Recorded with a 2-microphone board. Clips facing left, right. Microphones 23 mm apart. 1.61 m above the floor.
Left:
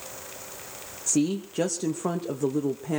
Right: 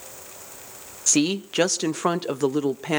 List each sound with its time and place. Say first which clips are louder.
1.1 s a woman speaking: right 4 dB; 75° right (ahead or behind), 0.8 m